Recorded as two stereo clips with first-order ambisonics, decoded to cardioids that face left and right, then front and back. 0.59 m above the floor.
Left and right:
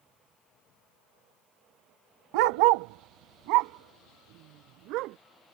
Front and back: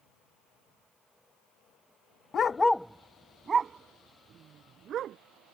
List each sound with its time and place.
2.3 s a dog barking: 65° right; by 5.2 s 125° right